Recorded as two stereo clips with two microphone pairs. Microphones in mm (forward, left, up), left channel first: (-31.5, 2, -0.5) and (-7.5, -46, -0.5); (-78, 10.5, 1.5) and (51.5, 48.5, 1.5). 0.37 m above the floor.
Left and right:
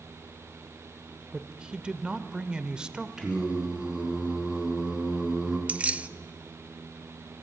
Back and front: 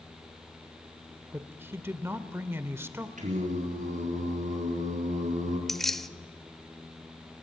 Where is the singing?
10° left, 4 m.